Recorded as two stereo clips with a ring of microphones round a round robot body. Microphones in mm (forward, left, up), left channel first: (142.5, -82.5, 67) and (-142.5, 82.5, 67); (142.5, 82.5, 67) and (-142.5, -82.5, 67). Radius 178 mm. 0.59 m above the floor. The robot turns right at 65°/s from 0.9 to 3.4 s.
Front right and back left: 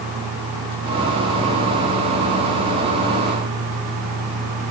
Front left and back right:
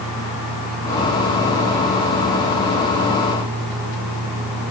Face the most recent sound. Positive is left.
No sound to turn to.